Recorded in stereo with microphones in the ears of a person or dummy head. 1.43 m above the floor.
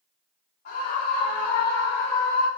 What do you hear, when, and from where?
0.7 s a scream: 55° left (ahead or behind), 4.5 m; by 2.5 s 75° left (ahead or behind), 5 m